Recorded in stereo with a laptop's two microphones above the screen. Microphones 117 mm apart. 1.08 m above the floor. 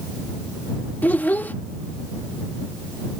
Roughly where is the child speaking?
Centre.